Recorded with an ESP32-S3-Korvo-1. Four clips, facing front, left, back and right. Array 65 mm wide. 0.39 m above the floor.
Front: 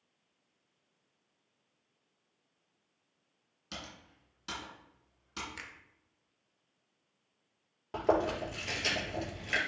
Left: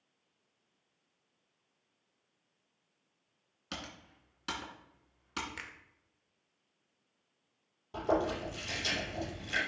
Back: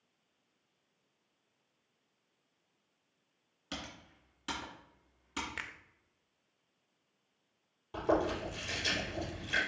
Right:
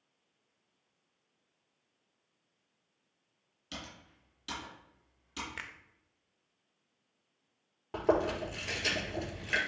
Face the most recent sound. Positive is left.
turn(degrees=-45)